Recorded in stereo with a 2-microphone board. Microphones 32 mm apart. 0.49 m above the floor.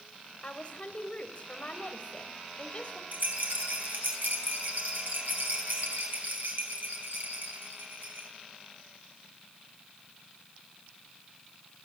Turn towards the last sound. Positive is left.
turn(degrees=-65)  # may be behind; listen again after turning